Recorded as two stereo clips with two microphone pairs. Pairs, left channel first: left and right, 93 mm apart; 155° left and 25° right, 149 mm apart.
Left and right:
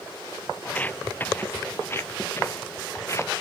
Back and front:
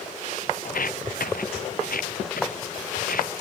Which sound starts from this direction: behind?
Footsteps, at 0.7 s.